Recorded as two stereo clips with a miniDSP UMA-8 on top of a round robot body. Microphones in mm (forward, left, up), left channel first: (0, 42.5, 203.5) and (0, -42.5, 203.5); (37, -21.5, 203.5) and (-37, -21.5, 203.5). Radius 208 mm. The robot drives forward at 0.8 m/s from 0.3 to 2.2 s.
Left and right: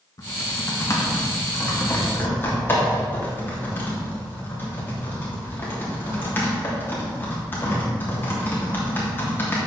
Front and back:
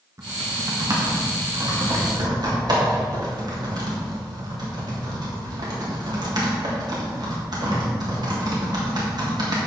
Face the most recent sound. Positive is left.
turn(degrees=155)